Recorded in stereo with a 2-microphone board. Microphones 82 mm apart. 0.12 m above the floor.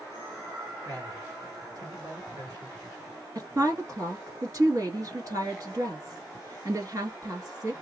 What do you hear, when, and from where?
0.8 s a man speaking: 45° right (ahead or behind), 2.5 m
3.4 s a woman speaking: 45° right (ahead or behind), 1.5 m